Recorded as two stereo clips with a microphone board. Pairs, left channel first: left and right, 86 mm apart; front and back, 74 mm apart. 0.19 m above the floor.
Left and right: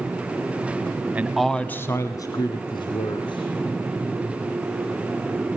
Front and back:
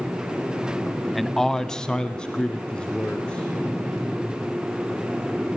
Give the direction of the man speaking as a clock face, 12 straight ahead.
3 o'clock.